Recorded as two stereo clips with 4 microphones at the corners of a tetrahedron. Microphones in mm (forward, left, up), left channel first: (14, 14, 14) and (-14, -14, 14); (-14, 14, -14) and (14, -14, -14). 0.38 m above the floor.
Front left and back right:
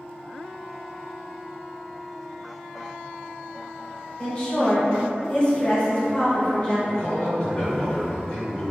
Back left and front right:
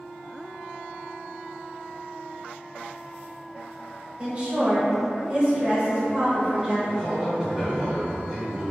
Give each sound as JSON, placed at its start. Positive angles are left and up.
{"t": 4.2, "sound": "a woman speaking", "azimuth_deg": 5, "distance_m": 1.3}
{"t": 6.9, "sound": "a man speaking", "azimuth_deg": 25, "distance_m": 0.9}